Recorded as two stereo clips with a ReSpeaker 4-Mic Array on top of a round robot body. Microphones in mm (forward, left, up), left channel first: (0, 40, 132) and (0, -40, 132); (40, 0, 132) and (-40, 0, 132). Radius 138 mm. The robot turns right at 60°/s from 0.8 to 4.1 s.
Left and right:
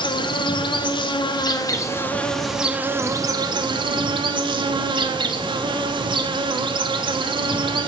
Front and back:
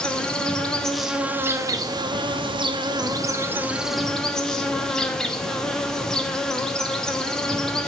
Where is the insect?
80° left, 0.7 m; by 7.9 s 80° right, 0.7 m.